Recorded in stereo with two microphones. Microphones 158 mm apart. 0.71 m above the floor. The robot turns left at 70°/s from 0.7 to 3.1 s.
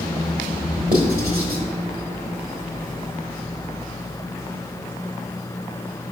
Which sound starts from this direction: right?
Writing, at 0.9 s.